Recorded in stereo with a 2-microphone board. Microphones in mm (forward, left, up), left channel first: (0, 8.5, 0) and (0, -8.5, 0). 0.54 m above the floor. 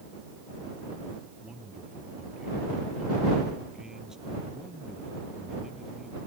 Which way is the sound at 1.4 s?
40° right (ahead or behind).